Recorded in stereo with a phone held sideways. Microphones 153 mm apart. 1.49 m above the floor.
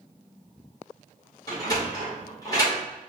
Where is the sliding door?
25° left (ahead or behind), 2 m.